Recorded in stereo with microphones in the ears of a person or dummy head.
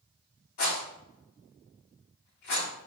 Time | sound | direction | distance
0.6 | a rattle | 60° left (ahead or behind) | 2.5 m